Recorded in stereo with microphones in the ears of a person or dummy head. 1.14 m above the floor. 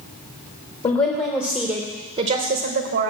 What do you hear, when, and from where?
0.8 s a woman speaking: 30° left (ahead or behind), 0.9 m; by 3.1 s 65° right (ahead or behind), 1.1 m